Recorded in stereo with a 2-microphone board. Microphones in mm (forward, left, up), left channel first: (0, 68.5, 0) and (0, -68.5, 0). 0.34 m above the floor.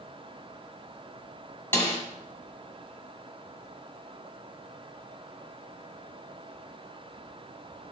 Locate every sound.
1.7 s a snare drum: 15° left (ahead or behind), 2.5 m